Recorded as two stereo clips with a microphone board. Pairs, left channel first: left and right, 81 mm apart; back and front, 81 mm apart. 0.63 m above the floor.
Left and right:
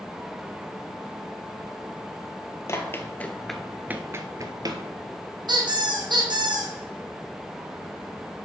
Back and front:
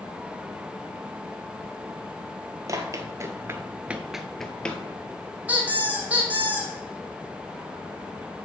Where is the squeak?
70° right, 1.8 m.